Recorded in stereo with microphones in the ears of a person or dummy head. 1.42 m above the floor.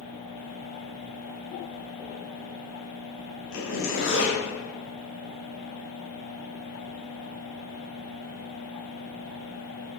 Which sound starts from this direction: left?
A zipper, at 3.5 s.